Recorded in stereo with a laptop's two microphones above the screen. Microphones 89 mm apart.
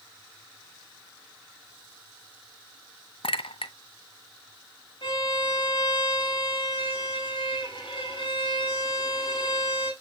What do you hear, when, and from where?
3.2 s a clink: 80° left, 0.6 m
5.0 s a violin: 60° left (ahead or behind), 5 m